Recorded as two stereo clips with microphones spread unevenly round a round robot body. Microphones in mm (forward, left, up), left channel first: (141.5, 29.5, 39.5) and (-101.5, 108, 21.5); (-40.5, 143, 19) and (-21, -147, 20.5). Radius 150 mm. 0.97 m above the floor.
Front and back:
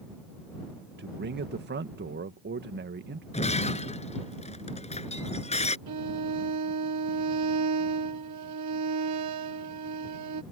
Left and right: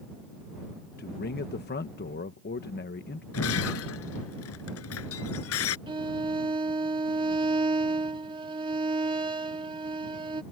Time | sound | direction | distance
1.0 | a man speaking | 140° left | ?
3.3 | breaking glass | 45° left | ?
5.9 | a violin | 160° right | ?